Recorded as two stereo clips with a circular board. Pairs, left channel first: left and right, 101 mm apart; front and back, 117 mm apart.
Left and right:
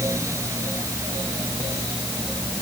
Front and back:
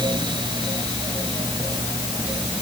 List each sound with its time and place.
Only background noise.